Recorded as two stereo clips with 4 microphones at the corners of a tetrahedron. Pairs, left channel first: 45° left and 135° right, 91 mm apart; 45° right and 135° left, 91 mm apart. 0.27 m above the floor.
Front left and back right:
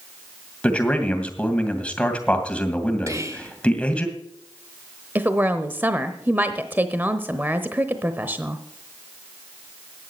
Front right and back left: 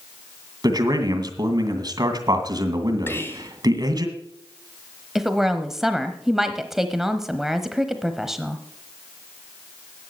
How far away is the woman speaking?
About 0.9 m.